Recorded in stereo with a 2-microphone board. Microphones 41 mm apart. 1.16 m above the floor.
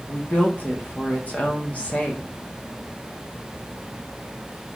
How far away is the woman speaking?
About 0.7 m.